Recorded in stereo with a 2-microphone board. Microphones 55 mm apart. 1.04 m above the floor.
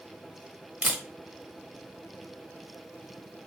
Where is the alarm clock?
No alarm clock in this recording.